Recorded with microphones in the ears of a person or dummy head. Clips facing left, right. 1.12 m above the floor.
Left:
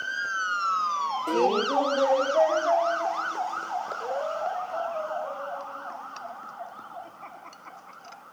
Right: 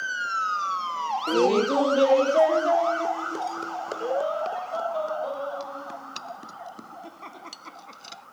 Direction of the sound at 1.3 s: 5° right (ahead or behind).